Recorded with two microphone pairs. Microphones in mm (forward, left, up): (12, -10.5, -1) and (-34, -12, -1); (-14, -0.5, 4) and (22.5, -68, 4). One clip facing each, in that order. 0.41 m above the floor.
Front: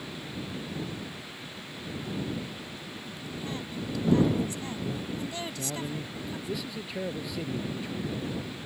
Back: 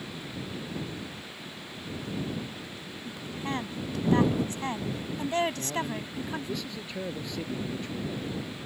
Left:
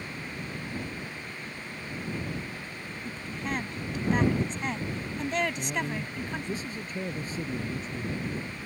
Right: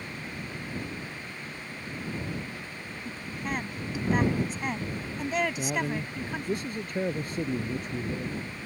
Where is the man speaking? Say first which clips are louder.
Back 3 dB, right 2 dB; 80° right.